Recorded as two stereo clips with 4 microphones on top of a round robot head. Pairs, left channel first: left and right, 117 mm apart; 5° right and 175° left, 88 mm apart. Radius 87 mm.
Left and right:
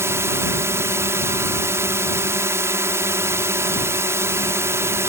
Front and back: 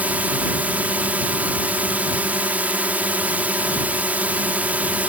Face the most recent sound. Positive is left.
turn(degrees=-130)